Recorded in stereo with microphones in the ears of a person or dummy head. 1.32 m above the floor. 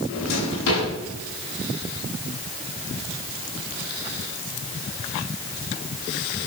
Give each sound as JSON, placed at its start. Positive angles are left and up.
{"t": 0.1, "sound": "a drawer", "side_deg": 80, "distance_m": 8.0}